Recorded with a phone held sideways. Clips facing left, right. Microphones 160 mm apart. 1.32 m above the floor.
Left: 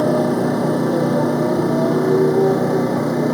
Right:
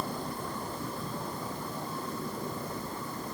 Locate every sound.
0.0 s a motorcycle: 90° left